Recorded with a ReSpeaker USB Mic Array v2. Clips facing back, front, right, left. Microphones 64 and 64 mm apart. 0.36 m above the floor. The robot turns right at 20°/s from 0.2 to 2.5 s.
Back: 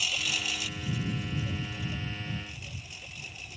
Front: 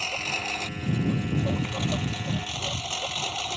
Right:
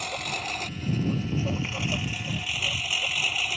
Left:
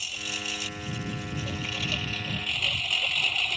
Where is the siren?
No siren in this recording.